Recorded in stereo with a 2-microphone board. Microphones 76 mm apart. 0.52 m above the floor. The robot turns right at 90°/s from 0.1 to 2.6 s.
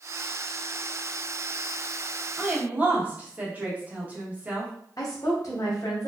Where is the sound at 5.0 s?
50° left (ahead or behind), 1.0 m.